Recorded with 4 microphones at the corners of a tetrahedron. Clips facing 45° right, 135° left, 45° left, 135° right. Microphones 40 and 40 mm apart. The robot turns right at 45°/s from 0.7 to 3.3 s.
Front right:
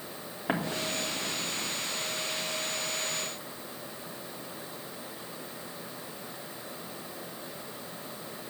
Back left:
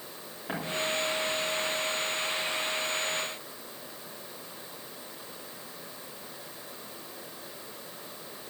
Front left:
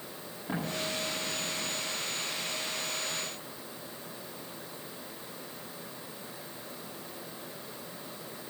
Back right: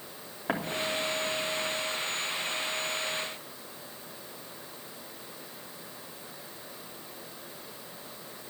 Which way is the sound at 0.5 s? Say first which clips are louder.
Even, back right 3 dB; 105° right.